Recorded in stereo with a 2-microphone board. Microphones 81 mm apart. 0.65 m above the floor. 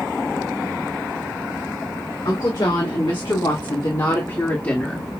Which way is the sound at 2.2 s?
65° left (ahead or behind).